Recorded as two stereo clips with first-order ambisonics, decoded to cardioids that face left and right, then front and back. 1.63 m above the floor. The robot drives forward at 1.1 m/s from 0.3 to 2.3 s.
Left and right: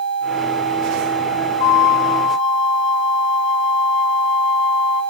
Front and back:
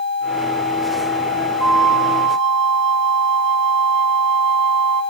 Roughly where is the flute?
Left.